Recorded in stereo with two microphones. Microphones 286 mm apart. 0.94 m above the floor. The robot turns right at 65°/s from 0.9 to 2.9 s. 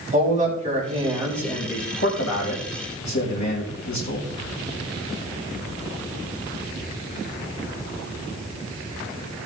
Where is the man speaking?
25° right, 4.5 m; by 4.3 s 105° left, 4.5 m.